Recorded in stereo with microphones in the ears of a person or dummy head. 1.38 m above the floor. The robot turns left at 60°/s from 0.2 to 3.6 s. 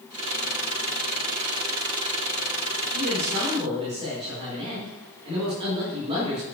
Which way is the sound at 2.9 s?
105° right.